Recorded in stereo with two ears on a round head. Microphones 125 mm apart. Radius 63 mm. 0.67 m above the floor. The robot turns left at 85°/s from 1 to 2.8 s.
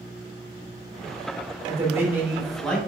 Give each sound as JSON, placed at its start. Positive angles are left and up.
{"t": 1.7, "sound": "a man speaking", "side_deg": -25, "distance_m": 1.0}